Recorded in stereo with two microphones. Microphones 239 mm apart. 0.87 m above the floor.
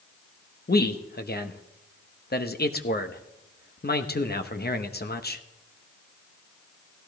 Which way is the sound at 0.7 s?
40° left (ahead or behind).